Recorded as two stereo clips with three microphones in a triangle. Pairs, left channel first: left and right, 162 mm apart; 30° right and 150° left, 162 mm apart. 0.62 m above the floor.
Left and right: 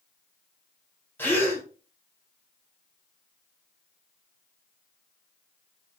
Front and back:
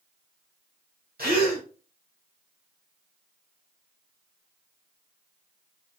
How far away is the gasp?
About 1.7 m.